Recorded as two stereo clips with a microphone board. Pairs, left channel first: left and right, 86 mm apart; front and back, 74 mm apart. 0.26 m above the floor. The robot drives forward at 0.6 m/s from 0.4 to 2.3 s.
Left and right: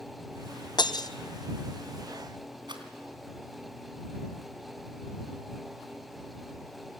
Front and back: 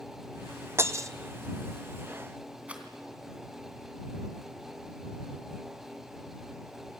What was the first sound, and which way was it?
Breaking glass, 125° left.